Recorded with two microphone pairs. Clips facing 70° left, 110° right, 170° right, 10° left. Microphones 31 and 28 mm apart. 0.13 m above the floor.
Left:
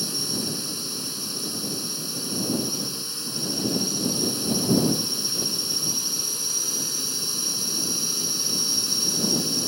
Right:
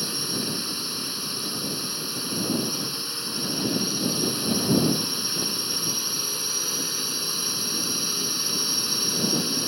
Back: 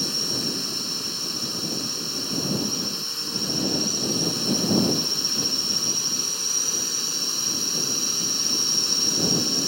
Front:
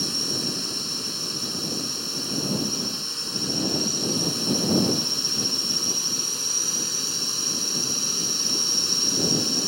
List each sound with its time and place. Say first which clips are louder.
0.0 s a drone: even, even; 85° right